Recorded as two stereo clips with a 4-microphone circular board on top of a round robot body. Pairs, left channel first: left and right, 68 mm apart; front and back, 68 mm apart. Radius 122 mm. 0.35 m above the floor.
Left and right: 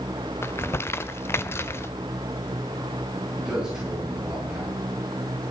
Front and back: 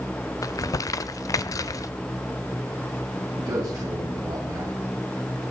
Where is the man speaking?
170° right, 4 m.